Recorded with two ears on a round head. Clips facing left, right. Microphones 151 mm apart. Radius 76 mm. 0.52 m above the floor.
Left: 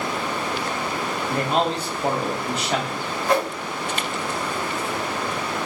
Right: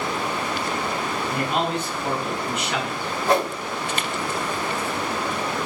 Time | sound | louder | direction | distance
1.3 | a man speaking | left 3 dB | 30° left (ahead or behind) | 0.7 m
3.3 | a whoosh | right 1 dB | 30° right (ahead or behind) | 1.2 m